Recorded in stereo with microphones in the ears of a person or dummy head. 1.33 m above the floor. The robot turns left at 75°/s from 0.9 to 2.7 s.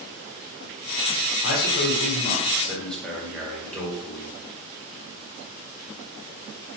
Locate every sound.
1.4 s a man speaking: 100° left, 1.4 m; by 4.3 s 5° left, 1.4 m